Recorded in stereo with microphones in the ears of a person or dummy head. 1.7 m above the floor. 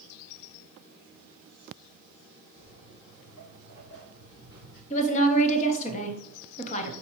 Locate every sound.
2.6 s footsteps: 55° left (ahead or behind), 4 m; by 4.8 s 65° left (ahead or behind), 4 m
4.9 s a woman speaking: 40° left (ahead or behind), 1.0 m